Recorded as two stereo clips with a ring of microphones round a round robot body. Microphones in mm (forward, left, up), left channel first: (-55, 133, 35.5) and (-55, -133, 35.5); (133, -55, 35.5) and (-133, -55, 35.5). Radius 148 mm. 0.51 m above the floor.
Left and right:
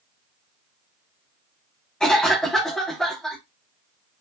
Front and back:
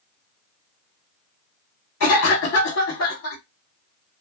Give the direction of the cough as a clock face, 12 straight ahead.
12 o'clock.